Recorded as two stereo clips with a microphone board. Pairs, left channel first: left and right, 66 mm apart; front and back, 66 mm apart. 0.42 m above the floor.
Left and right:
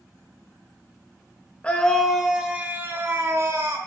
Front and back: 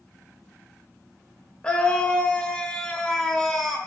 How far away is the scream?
About 0.8 m.